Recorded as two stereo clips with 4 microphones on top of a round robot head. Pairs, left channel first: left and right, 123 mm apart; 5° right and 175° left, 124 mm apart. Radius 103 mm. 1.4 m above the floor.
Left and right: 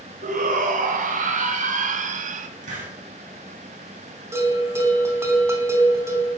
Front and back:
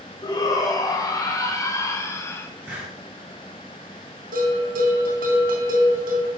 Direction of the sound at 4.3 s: 160° right.